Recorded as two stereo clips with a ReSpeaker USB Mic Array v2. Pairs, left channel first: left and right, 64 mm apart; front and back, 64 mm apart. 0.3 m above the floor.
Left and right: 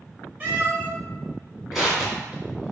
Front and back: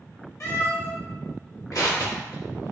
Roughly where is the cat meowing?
Ahead right.